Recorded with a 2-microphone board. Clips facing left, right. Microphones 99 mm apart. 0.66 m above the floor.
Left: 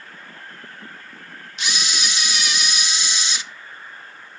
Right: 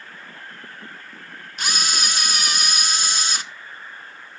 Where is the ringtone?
I don't hear a ringtone.